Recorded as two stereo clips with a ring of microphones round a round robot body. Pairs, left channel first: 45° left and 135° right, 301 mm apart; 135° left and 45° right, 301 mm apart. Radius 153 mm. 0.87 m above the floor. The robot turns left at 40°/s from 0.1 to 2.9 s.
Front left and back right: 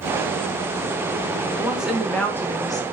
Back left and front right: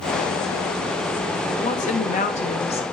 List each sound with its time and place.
1.6 s a woman speaking: 150° left, 0.5 m; by 2.8 s 100° left, 0.5 m